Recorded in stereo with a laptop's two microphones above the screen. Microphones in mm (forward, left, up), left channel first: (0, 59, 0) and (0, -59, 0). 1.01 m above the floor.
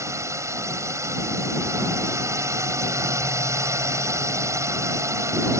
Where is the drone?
25° right (ahead or behind).